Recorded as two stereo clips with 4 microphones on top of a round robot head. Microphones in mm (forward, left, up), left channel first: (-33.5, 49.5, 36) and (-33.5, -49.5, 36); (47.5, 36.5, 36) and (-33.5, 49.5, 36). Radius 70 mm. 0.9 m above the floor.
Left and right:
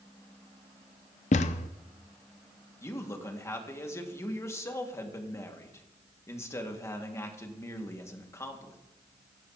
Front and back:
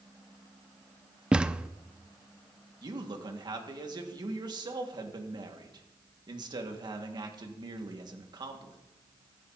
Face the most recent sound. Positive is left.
turn(degrees=150)